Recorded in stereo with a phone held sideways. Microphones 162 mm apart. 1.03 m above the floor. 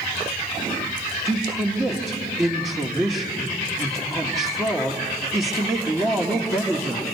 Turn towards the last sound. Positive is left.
turn(degrees=-15)  # may be behind; listen again after turning